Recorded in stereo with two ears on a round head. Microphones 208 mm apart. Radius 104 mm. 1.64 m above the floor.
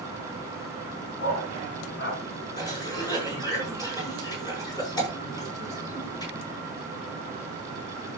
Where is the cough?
20° left (ahead or behind), 7.5 m.